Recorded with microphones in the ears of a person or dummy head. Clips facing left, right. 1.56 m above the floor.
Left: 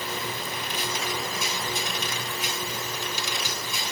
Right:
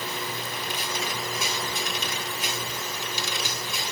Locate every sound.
Only background noise.